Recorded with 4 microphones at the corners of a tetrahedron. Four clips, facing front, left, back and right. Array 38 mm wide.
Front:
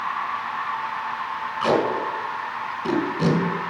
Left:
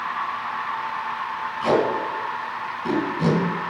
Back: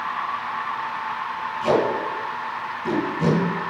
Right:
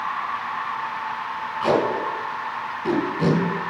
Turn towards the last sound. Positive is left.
turn(degrees=-10)